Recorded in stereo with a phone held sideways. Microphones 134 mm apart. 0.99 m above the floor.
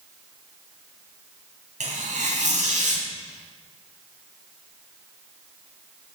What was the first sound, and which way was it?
Tearing paper, 80° right.